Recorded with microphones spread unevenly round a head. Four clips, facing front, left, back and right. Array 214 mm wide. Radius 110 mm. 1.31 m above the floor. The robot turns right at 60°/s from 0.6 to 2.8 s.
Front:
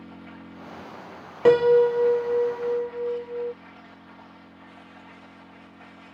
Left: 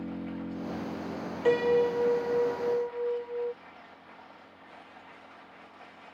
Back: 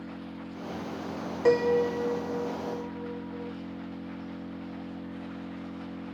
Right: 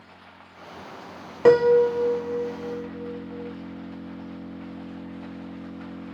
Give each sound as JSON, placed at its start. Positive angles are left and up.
{"t": 0.0, "sound": "an engine running", "azimuth_deg": 105}
{"t": 1.4, "sound": "a piano", "azimuth_deg": -65}